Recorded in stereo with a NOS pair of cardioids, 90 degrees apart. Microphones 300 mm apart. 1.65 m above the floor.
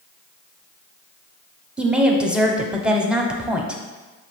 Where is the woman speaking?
5° right, 0.8 m.